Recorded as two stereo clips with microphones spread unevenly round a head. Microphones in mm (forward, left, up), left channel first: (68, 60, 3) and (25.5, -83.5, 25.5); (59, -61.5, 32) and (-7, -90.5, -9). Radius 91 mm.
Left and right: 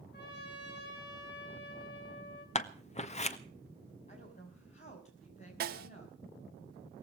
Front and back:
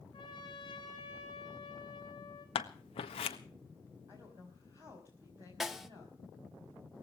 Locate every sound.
0.1 s a trumpet: 70° left, 6 m
2.5 s scissors: 40° left, 1.4 m
4.1 s a woman speaking: 130° left, 6.5 m
5.6 s a snare drum: 90° right, 1.6 m